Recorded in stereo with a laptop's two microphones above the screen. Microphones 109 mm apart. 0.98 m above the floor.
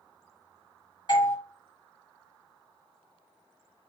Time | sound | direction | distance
1.1 | a doorbell | 40° left (ahead or behind) | 0.9 m